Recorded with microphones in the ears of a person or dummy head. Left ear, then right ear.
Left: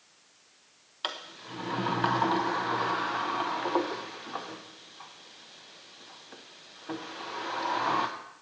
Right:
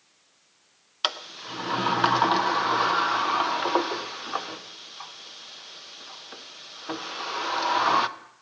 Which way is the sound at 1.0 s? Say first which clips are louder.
Right 7 dB; 35° right (ahead or behind).